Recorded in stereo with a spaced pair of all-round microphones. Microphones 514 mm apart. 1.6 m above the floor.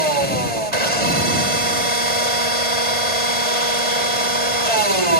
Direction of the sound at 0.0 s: 80° right.